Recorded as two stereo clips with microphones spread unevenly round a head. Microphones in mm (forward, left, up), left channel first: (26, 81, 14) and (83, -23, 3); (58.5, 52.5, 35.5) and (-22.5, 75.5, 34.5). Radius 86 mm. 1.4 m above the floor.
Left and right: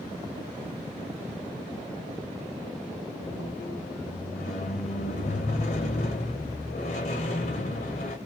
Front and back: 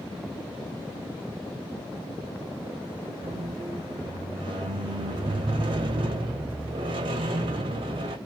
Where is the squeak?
150° left, 0.6 m.